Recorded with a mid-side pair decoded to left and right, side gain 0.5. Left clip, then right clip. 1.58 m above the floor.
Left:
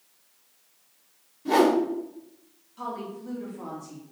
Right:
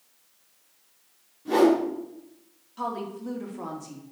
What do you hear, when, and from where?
1.4 s a whoosh: 35° left, 3.5 m
2.8 s a woman speaking: 35° right, 2.5 m